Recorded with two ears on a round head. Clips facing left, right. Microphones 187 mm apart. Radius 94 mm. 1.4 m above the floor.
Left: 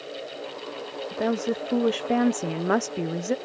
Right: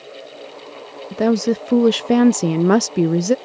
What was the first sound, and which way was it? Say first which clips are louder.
A woman speaking: right 9 dB; 55° right (ahead or behind).